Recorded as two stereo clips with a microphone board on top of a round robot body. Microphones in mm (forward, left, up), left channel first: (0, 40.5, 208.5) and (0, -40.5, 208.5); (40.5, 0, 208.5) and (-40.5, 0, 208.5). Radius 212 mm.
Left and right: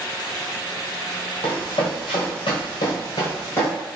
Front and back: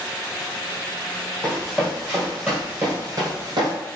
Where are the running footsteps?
90° left, 1.4 m; by 3.7 s 165° left, 0.5 m.